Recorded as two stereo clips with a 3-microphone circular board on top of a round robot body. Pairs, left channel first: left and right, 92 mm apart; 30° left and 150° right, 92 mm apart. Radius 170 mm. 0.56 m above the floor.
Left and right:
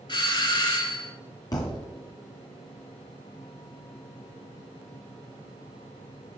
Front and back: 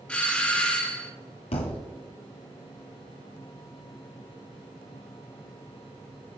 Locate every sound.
0.1 s a doorbell: 105° left, 1.9 m
1.5 s a thud: 35° left, 0.8 m